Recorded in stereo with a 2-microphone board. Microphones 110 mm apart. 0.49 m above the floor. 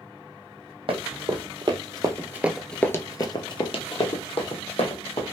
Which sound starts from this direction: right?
Running footsteps, at 0.9 s.